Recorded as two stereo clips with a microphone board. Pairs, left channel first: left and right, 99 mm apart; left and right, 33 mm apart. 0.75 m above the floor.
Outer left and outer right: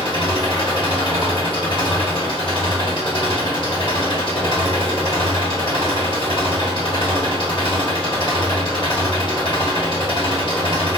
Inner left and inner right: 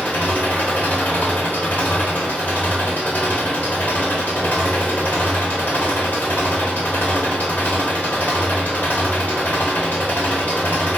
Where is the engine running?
60° left (ahead or behind), 1.4 m.